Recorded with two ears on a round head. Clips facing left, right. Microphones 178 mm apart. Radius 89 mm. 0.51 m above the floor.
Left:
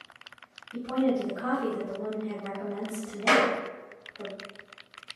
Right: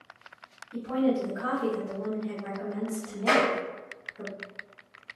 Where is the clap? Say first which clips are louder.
Even; 40° left (ahead or behind), 1.2 m.